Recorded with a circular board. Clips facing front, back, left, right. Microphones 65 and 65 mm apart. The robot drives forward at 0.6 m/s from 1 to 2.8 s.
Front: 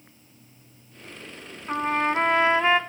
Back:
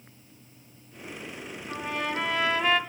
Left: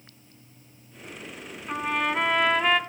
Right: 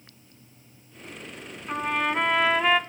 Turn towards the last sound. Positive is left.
turn(degrees=-10)